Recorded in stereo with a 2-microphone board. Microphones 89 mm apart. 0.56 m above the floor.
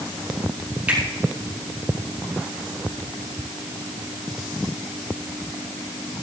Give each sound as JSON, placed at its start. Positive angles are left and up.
{"t": 0.9, "sound": "a finger snap", "side_deg": -20, "distance_m": 6.5}